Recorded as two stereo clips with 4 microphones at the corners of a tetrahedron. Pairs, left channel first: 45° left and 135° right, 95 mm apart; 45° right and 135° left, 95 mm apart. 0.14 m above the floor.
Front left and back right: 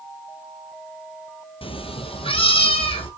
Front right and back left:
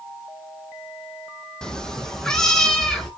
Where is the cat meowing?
40° left, 0.7 m.